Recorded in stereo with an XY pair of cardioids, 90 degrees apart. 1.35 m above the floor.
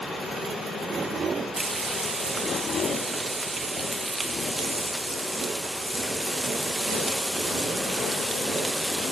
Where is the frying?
30° right, 1.7 m.